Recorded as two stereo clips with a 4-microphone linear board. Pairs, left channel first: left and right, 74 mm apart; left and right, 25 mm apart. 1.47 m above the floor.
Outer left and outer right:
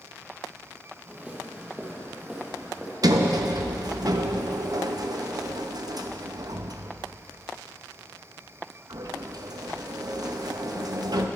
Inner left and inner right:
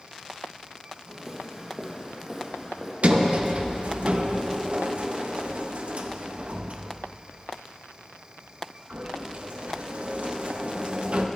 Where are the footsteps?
15° right (ahead or behind), 2 m; by 2.9 s 5° right (ahead or behind), 3.5 m.